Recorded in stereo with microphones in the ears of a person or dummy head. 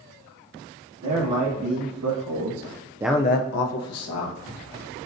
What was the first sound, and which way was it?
A man speaking, 80° right.